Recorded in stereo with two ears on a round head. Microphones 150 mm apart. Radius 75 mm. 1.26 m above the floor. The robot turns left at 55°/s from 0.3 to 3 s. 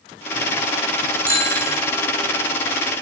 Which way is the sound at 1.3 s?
15° right (ahead or behind).